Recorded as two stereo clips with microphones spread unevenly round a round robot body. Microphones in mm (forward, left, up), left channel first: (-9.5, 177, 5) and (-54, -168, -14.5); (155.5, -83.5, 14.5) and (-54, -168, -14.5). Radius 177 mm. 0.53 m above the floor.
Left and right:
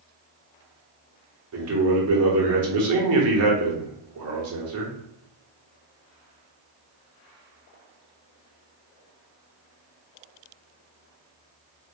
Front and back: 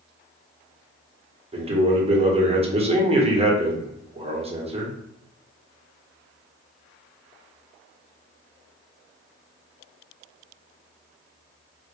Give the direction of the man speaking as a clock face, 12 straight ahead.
4 o'clock.